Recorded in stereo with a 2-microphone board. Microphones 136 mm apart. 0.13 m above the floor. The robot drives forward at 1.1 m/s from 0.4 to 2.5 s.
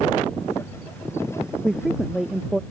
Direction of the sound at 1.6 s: 5° right (ahead or behind).